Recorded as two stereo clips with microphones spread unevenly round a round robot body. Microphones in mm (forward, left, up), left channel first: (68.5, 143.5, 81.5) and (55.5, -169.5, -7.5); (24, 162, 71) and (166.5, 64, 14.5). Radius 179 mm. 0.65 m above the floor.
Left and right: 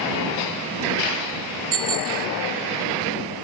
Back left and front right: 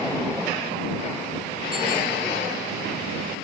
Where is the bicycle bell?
120° right.